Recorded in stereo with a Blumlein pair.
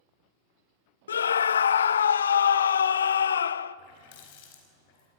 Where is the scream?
65° left, 0.6 m.